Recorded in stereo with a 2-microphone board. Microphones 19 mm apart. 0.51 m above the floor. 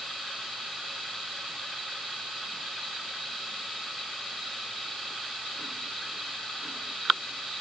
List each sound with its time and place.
Only background noise.